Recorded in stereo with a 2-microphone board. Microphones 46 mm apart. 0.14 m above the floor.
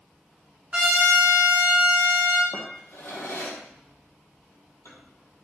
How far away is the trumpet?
About 1.2 m.